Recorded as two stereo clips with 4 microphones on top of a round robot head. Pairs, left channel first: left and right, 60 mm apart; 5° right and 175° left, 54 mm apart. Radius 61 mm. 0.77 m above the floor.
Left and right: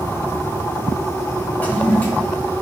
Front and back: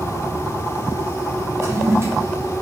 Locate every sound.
1.6 s a toilet flushing: 150° left, 1.8 m